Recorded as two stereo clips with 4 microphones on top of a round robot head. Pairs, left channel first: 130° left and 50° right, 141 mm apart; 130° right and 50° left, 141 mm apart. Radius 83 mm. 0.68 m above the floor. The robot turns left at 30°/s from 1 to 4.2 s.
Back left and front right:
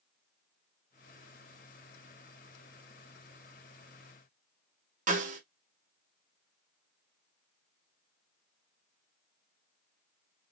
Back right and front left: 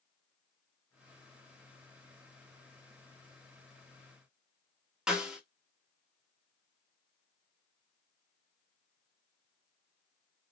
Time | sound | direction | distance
5.1 | a snare drum | 35° right | 1.4 m